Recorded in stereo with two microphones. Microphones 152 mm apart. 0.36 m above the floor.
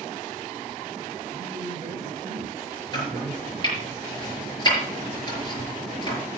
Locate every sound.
1.3 s a man speaking: 25° right (ahead or behind), 4 m
2.9 s chopping: 30° left (ahead or behind), 6.5 m